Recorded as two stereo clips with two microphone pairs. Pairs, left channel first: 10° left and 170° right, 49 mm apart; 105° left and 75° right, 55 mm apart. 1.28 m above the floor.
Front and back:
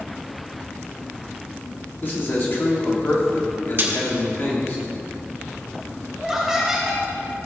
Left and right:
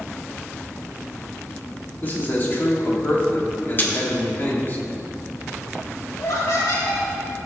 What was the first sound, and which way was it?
A man speaking, 50° left.